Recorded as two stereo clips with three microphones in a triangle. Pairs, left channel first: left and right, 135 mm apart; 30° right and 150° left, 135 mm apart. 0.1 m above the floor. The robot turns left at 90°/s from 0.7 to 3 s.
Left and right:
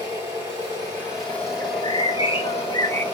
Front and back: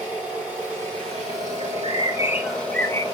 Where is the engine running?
135° right, 4 m; by 3.1 s 15° left, 4 m.